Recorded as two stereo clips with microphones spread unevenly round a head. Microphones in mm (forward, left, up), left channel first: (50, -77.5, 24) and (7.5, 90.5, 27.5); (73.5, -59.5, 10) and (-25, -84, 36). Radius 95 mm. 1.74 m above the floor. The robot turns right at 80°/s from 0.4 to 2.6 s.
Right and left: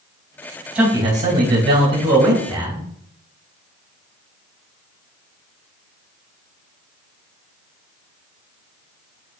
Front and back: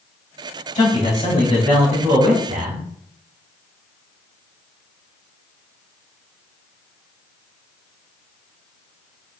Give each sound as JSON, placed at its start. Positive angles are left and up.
{"t": 0.8, "sound": "a man speaking", "azimuth_deg": 20, "distance_m": 2.5}